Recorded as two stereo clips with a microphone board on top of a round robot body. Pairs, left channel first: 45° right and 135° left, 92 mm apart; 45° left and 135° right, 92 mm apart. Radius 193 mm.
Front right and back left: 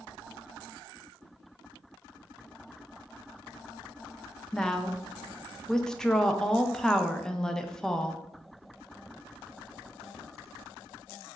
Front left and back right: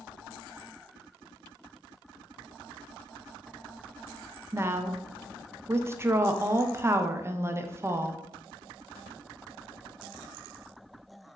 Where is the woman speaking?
120° right, 0.5 m.